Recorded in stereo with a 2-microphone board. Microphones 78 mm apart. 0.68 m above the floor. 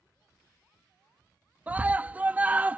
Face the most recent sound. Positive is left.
turn(degrees=-20)  # may be behind; listen again after turning